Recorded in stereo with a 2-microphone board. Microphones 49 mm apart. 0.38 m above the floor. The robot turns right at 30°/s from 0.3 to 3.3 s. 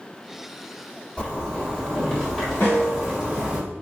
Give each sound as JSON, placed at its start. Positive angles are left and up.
{"t": 1.2, "sound": "a zipper", "azimuth_deg": 130, "distance_m": 1.8}
{"t": 2.6, "sound": "a snare drum", "side_deg": 45, "distance_m": 1.6}